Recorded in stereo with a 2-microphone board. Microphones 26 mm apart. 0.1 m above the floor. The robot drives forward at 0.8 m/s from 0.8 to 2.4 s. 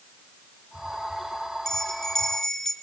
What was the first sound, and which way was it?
A bell, 15° left (ahead or behind).